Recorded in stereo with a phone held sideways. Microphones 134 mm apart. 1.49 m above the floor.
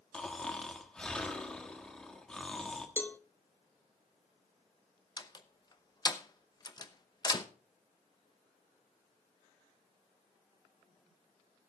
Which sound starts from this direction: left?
A door slam, at 5.2 s.